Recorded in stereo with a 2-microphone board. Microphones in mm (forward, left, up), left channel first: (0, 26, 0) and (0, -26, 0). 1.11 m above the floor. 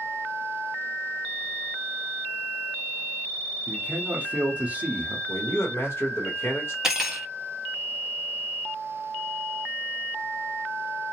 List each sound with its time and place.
3.7 s a man speaking: 30° right (ahead or behind), 0.8 m
5.3 s a man speaking: 50° left (ahead or behind), 1.3 m
6.8 s cutlery clinking: 10° right (ahead or behind), 0.7 m